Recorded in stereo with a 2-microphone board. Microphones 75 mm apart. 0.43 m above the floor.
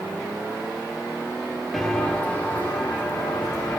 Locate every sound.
1.7 s footsteps: 5° left (ahead or behind), 0.6 m; by 3.8 s 35° left (ahead or behind), 2.5 m